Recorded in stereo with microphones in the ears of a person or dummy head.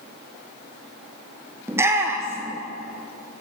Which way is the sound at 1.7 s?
10° right (ahead or behind).